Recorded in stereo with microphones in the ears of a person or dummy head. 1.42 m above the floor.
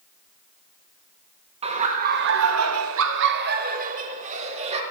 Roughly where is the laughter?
Right.